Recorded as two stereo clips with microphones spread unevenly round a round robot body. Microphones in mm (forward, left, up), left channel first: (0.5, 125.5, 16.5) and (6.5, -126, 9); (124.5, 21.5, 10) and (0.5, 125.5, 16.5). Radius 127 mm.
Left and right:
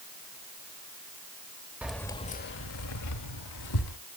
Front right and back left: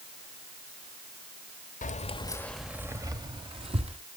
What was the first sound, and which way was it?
Keys jangling, 5° right.